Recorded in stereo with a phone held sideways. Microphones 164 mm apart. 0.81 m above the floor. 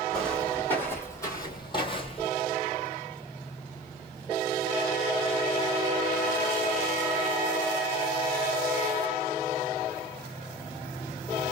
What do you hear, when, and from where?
0.1 s footsteps: 5° left (ahead or behind), 1.5 m; by 2.3 s 40° left (ahead or behind), 1.1 m